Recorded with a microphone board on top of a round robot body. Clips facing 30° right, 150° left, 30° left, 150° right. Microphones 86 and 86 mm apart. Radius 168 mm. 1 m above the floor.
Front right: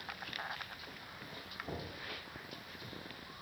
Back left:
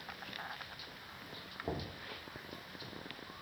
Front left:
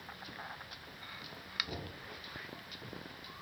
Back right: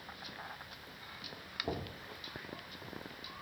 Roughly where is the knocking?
Behind.